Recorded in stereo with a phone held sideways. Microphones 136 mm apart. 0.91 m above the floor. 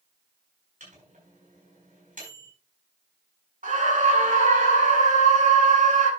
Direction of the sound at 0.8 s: 85° right.